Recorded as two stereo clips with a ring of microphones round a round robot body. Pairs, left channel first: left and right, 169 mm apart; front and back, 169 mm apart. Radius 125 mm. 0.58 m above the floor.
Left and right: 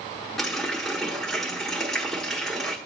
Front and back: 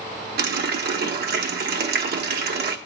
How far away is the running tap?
About 1.0 m.